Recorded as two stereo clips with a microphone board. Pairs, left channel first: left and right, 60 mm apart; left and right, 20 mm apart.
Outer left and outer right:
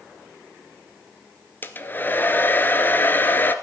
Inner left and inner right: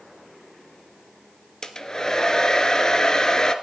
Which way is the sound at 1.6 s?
35° left (ahead or behind).